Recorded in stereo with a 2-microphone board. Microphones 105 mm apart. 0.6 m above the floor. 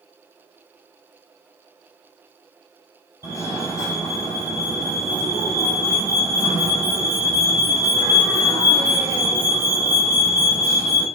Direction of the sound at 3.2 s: 35° left (ahead or behind).